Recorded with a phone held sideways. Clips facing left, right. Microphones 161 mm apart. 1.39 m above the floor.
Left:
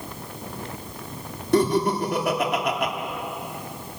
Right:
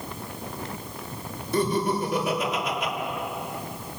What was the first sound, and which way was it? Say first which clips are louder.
Laughter: left 4 dB; 80° left.